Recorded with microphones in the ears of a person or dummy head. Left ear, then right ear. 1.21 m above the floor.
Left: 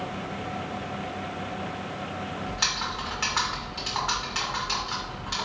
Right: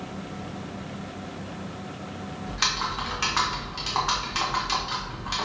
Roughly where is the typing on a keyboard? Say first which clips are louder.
Right 2 dB; centre.